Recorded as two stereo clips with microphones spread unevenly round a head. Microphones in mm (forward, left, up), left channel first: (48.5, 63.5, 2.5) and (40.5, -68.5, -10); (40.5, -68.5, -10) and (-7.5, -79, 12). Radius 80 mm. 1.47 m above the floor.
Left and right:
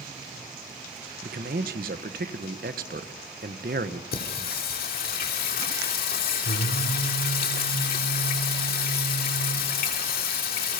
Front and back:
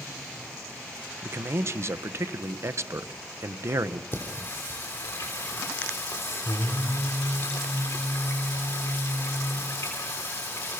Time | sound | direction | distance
1.2 | a man speaking | 135° right | 1.4 m
4.1 | singing | 90° left | 3 m